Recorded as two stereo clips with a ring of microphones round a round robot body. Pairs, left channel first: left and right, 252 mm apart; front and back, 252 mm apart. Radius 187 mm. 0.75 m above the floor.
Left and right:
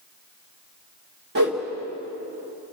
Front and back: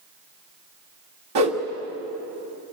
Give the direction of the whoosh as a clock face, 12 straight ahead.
5 o'clock.